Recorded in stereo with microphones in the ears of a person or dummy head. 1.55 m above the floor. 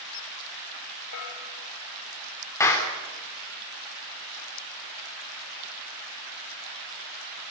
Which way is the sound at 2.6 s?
15° left (ahead or behind).